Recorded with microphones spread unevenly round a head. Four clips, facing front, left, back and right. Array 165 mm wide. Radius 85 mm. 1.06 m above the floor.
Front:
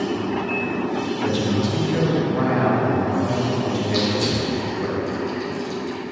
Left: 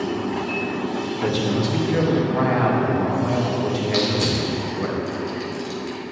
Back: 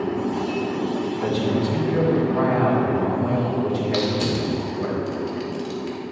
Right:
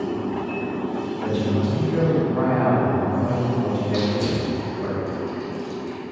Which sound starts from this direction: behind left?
Crushing, at 3.9 s.